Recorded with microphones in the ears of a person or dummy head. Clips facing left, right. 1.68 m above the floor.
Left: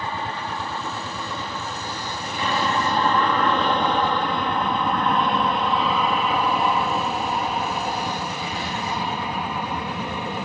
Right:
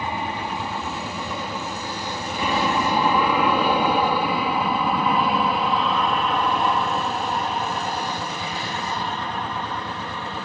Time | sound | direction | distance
0.0 | an aircraft | 20° right (ahead or behind) | ?